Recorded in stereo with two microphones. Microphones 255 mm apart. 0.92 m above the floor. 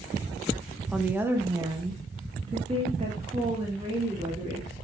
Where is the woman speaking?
5° right (ahead or behind), 0.9 m; by 4.9 s 30° right (ahead or behind), 3 m.